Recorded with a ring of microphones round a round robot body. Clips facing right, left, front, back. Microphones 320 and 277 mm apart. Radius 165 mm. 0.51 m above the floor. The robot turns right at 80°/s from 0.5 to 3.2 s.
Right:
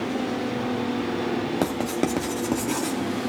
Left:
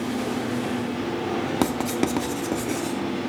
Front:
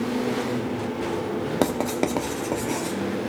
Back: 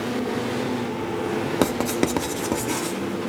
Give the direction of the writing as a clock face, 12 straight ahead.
8 o'clock.